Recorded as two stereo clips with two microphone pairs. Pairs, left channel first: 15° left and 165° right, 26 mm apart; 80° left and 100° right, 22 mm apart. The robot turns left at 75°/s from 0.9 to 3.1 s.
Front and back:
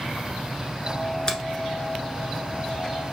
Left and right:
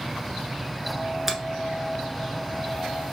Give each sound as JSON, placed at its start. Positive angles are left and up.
{"t": 1.3, "sound": "a finger snap", "azimuth_deg": -35, "distance_m": 1.2}